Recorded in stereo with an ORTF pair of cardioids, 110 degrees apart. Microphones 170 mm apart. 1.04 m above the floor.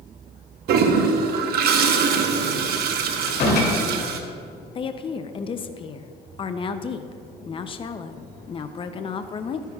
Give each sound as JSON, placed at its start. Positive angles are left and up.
{"t": 0.7, "sound": "a toilet flushing", "azimuth_deg": -65, "distance_m": 0.9}
{"t": 3.3, "sound": "a door slam", "azimuth_deg": 60, "distance_m": 2.5}
{"t": 4.8, "sound": "a woman speaking", "azimuth_deg": 30, "distance_m": 0.5}